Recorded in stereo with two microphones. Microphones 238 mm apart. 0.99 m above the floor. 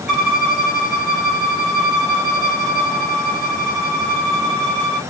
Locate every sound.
0.1 s a violin: centre (ahead or behind), 3 m